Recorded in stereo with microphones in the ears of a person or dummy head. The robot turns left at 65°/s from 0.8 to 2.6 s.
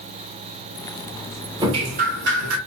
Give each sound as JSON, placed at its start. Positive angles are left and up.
{"t": 1.6, "sound": "dripping", "azimuth_deg": -20, "distance_m": 0.6}